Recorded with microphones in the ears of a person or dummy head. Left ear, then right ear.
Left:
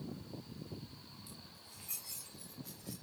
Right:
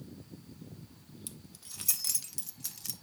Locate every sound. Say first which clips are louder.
1.3 s keys jangling: right 3 dB; 35° right (ahead or behind), 0.7 m; by 2.9 s 65° right (ahead or behind), 1.1 m